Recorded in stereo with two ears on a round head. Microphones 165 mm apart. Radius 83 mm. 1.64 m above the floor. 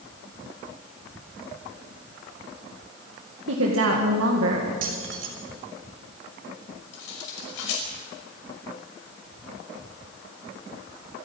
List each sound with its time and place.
3.5 s a woman speaking: 80° right, 2.0 m
4.8 s keys jangling: 70° right (ahead or behind), 4 m
6.9 s cutlery clinking: 75° left (ahead or behind), 5.5 m